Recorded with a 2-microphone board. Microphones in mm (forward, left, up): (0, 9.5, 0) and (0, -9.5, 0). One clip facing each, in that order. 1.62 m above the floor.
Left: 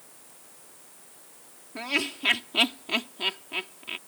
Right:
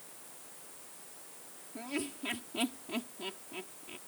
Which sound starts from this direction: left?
Laughter, at 1.8 s.